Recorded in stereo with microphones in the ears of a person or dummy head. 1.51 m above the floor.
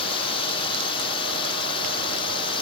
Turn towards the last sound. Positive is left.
turn(degrees=25)  # may be behind; listen again after turning